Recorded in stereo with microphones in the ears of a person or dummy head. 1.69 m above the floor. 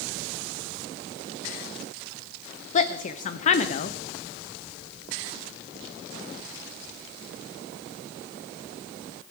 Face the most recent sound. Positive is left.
turn(degrees=45)  # may be behind; listen again after turning